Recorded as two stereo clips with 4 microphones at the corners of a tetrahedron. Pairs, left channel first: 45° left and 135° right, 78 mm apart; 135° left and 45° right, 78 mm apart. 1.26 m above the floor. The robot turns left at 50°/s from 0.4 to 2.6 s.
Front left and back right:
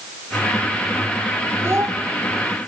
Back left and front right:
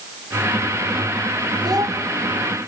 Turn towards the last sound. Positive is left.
turn(degrees=-125)